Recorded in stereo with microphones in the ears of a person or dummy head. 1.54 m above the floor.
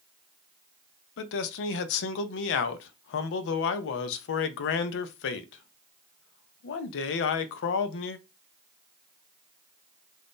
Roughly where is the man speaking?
Left.